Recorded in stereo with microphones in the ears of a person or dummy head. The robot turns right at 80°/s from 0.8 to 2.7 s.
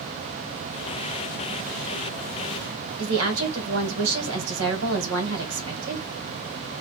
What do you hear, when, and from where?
3.0 s a woman speaking: 80° right, 1.8 m